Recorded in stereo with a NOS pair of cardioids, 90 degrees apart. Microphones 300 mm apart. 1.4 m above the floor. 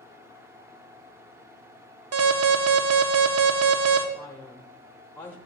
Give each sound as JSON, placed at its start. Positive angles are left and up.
{"t": 0.0, "sound": "a fan", "azimuth_deg": -10, "distance_m": 0.7}
{"t": 2.1, "sound": "an alarm", "azimuth_deg": -65, "distance_m": 0.9}
{"t": 4.2, "sound": "a man speaking", "azimuth_deg": 5, "distance_m": 0.8}